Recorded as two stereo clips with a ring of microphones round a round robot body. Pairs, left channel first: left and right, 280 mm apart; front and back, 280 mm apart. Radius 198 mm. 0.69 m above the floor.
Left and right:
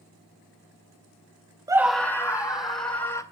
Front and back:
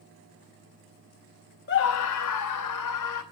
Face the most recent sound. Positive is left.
turn(degrees=15)